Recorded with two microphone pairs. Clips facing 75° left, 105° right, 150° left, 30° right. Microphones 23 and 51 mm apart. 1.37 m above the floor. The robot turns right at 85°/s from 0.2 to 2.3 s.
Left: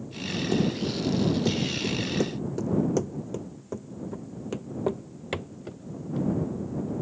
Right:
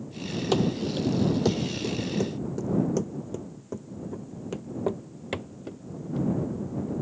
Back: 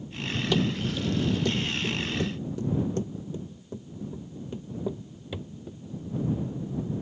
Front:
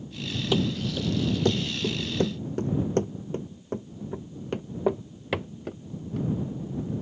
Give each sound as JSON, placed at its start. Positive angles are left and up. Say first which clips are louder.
{"t": 0.5, "sound": "running footsteps", "louder": "right 2 dB, front 1 dB", "azimuth_deg": -105}